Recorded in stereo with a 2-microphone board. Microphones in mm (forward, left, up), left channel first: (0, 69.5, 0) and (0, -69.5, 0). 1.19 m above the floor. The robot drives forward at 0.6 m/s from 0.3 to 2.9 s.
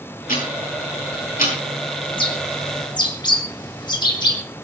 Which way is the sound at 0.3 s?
85° left.